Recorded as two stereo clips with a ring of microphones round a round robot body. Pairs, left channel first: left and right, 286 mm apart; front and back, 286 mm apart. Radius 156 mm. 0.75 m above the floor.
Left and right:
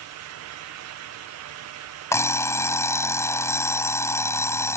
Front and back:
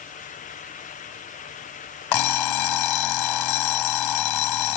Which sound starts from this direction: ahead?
An alarm clock, at 2.1 s.